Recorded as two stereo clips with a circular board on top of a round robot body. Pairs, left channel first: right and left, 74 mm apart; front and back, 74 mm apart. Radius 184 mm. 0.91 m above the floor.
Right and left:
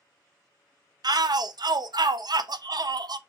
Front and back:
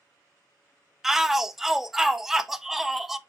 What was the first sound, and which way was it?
A shout, 95° left.